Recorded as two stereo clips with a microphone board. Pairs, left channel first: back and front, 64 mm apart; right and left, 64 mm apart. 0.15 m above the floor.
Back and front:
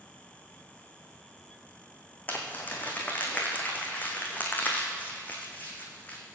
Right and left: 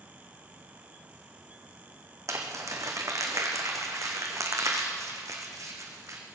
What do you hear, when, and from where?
2.3 s crumpling: 120° left, 2.5 m